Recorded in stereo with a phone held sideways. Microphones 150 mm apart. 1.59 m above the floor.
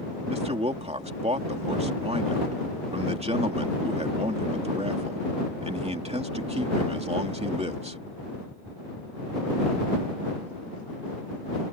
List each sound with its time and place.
0.3 s a man speaking: 45° right (ahead or behind)